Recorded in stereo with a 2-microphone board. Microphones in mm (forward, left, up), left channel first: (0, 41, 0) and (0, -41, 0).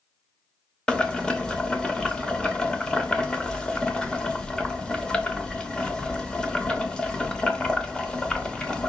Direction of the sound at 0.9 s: 10° left (ahead or behind).